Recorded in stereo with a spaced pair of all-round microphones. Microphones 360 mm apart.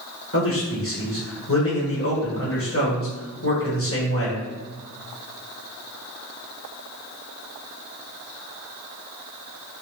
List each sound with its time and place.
0.3 s a man speaking: 40° left (ahead or behind), 1.2 m